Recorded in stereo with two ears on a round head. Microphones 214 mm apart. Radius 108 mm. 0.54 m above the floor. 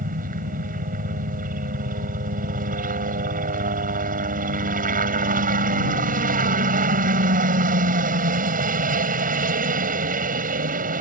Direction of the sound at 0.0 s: 35° right (ahead or behind).